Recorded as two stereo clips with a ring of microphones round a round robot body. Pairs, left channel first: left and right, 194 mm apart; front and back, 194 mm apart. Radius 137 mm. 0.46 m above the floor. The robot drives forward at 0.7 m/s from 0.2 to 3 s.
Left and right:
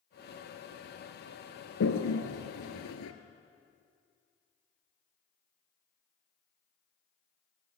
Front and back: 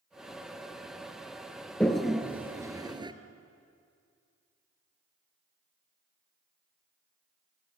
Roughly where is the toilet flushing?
Left.